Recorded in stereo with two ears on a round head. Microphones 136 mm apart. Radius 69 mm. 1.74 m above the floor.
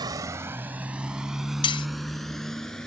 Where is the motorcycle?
30° right (ahead or behind); by 2.9 s 5° left (ahead or behind).